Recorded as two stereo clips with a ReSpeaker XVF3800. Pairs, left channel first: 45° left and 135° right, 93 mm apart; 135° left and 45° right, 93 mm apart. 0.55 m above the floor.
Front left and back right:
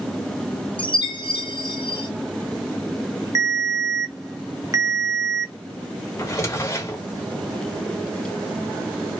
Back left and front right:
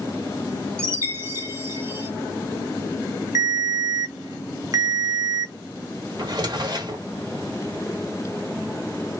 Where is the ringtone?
90° right, 0.7 m.